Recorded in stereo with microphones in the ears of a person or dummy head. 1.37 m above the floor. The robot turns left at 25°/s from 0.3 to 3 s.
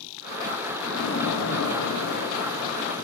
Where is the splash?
100° left, 8.5 m; by 3.0 s 50° left, 8.5 m.